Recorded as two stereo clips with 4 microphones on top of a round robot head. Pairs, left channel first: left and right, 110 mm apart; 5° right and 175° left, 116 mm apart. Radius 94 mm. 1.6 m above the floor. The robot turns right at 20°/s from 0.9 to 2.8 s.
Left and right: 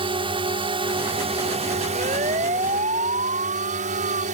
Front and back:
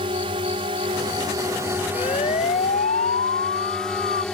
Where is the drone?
130° right; by 4.3 s 90° right.